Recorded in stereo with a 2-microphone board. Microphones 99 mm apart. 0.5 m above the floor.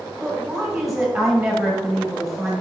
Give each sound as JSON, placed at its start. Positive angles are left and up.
{"t": 0.2, "sound": "a woman speaking", "side_deg": 0, "distance_m": 3.0}